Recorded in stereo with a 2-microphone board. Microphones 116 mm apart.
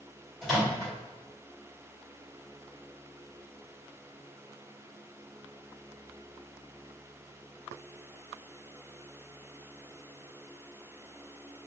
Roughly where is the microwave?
Centre.